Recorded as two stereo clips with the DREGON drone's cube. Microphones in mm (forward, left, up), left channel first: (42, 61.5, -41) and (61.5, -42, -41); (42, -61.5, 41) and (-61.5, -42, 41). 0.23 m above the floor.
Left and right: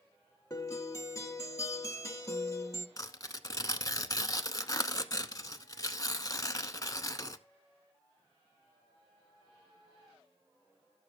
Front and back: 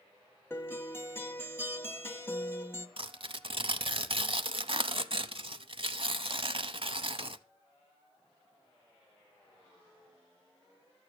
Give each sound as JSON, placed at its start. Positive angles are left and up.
{"t": 0.5, "sound": "a guitar", "azimuth_deg": 50, "distance_m": 1.1}
{"t": 3.0, "sound": "tearing paper", "azimuth_deg": 150, "distance_m": 0.6}